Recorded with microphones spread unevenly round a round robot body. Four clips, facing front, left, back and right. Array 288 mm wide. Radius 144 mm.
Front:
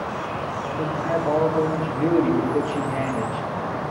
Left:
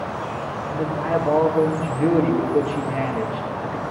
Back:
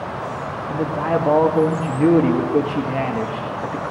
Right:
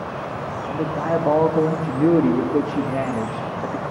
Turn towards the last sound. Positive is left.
turn(degrees=-130)